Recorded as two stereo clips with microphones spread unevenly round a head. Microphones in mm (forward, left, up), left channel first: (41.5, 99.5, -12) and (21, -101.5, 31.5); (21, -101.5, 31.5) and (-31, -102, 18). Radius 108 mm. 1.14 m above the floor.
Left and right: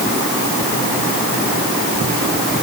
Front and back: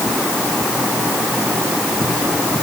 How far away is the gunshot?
I don't hear a gunshot.